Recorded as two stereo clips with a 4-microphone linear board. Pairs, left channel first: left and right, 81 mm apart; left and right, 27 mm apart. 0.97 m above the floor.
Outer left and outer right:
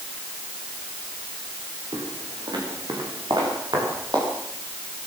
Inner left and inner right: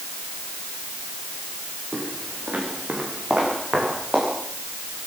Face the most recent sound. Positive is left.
turn(degrees=-60)  # may be behind; listen again after turning